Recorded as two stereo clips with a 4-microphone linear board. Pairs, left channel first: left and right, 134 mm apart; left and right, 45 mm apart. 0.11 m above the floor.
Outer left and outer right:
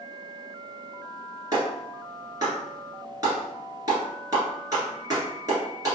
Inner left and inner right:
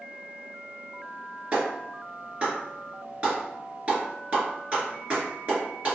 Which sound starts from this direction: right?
A clap, at 1.5 s.